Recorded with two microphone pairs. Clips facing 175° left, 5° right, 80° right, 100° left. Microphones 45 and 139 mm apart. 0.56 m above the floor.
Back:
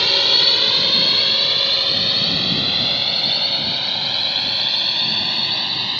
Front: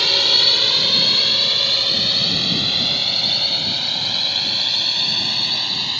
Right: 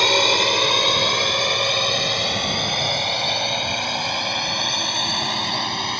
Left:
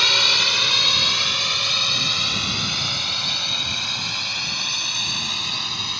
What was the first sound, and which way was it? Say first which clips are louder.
A drone: even, right 8 dB; 100° right.